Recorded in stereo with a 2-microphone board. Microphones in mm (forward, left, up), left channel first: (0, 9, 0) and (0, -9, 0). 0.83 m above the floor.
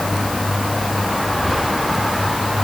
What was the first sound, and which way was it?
Only background noise.